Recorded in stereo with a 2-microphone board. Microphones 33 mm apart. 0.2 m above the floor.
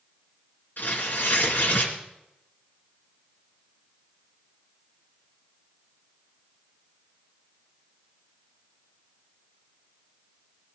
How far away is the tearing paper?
About 3 m.